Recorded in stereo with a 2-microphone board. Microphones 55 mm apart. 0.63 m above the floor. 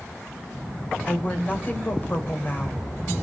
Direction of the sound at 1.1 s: 35° left (ahead or behind).